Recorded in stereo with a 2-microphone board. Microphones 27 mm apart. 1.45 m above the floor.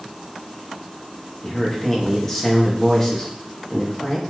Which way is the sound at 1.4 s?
10° left (ahead or behind).